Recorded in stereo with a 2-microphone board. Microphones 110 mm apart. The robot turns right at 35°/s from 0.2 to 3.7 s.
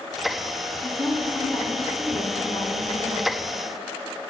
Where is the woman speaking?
5° left, 2 m; by 3.3 s 95° left, 2 m.